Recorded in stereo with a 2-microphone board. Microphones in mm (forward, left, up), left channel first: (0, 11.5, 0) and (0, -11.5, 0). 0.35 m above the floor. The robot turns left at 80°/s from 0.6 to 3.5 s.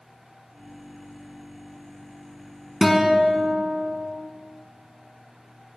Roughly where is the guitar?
Ahead.